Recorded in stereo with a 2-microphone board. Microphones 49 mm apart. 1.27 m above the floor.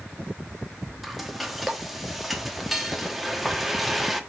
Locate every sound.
1.0 s frying: 5° right (ahead or behind), 1.0 m